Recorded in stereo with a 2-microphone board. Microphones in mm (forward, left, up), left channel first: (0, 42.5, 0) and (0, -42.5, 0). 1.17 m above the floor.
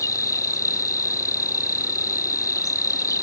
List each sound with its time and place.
0.0 s an insect: 40° left (ahead or behind)